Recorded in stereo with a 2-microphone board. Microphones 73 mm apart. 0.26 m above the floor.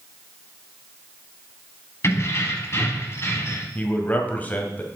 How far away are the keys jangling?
About 1.2 m.